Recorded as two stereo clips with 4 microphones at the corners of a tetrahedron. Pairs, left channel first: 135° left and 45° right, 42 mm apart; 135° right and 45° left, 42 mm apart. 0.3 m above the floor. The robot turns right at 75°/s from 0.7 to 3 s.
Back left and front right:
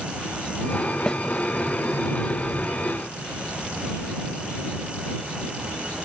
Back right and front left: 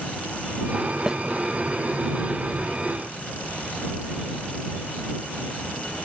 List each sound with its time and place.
1.1 s a snare drum: 95° left; by 1.2 s 105° left